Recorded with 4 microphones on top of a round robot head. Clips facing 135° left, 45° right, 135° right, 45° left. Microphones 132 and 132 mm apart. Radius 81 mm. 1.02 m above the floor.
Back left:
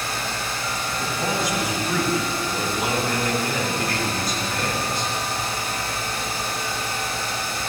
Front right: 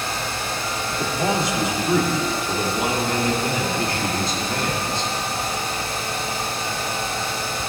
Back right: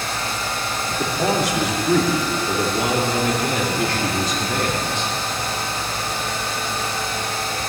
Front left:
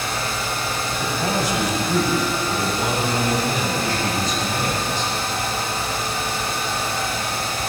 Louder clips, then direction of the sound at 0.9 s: Front right 5 dB, back right 4 dB; 110° right.